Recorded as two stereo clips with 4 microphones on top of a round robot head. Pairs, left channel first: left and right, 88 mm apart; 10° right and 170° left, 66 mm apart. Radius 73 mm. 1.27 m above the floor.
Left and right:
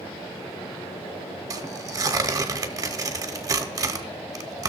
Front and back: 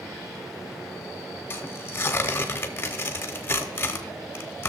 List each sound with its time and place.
1.5 s tearing paper: 55° right, 0.8 m